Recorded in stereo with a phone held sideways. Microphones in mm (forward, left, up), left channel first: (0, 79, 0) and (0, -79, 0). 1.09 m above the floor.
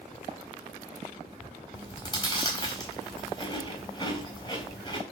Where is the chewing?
25° left (ahead or behind), 5.5 m.